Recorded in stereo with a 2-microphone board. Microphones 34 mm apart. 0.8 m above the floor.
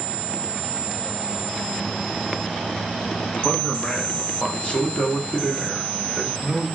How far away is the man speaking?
About 1.3 m.